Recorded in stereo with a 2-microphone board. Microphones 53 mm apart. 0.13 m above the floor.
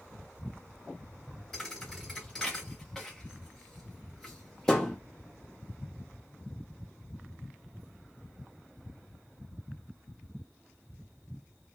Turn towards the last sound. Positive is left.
turn(degrees=10)  # may be behind; listen again after turning